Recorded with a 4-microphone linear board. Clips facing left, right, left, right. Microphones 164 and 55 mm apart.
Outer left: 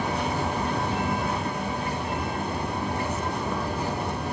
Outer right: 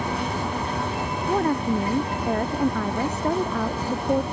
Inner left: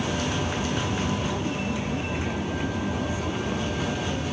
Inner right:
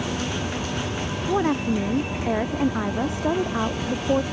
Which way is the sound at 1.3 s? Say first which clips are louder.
Outer right 7 dB, inner right 6 dB; 60° right (ahead or behind).